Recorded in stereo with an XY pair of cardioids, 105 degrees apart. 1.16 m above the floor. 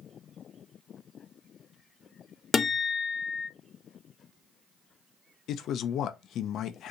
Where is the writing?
I don't hear writing.